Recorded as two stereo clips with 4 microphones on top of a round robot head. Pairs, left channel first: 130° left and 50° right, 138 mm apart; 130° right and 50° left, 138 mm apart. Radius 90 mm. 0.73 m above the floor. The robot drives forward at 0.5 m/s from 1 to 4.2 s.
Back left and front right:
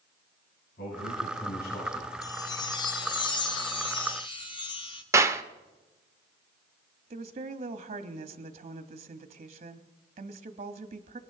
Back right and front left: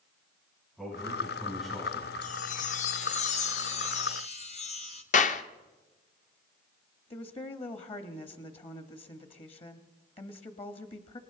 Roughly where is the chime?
Behind.